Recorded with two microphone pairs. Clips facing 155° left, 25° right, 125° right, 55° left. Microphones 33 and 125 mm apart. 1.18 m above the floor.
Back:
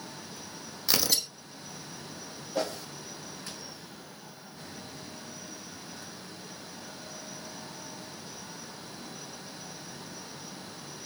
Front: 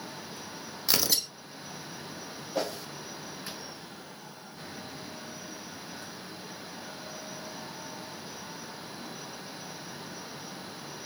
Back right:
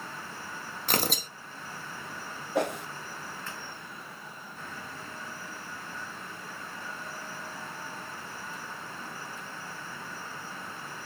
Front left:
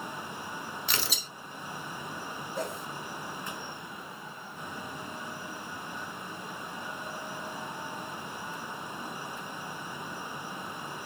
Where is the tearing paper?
110° right, 0.5 m.